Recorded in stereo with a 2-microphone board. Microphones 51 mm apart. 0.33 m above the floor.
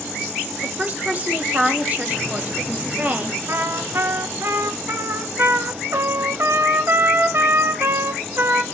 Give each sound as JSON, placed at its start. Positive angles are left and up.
{"t": 0.6, "sound": "a woman speaking", "side_deg": -30, "distance_m": 1.2}
{"t": 3.5, "sound": "a trumpet", "side_deg": -50, "distance_m": 0.7}